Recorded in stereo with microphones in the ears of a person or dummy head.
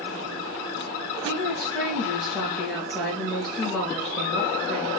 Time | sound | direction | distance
1.2 | a woman speaking | 5° right (ahead or behind) | 2.5 m